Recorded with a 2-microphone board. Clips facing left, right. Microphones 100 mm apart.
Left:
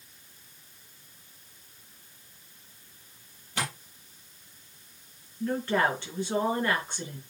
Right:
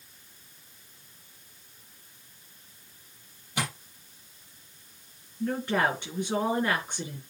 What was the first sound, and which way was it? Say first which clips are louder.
Tapping: right 1 dB; 10° right (ahead or behind).